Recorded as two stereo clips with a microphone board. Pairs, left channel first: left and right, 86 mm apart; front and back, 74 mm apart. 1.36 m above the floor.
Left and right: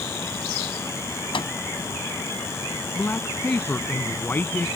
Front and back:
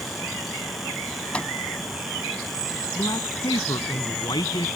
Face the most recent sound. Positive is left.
turn(degrees=20)